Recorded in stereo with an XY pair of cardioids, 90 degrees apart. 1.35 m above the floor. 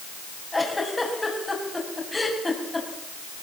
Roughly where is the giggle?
Ahead.